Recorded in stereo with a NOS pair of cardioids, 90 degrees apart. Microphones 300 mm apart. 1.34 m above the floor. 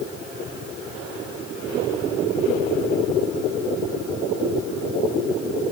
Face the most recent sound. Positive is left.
No sound to turn to.